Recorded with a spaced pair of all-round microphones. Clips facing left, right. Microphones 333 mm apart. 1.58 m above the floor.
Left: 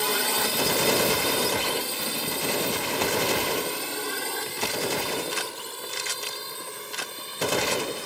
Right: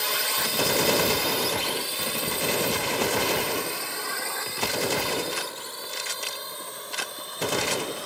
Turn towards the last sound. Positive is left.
turn(degrees=35)  # may be behind; listen again after turning